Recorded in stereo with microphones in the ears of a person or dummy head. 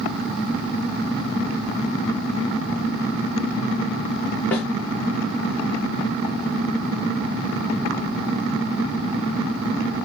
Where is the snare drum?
10° left (ahead or behind), 0.7 m.